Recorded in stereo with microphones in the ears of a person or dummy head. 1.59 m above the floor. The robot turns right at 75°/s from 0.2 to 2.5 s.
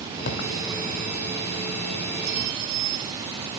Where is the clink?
60° right (ahead or behind), 2.5 m; by 3.2 s 75° right (ahead or behind), 2.5 m.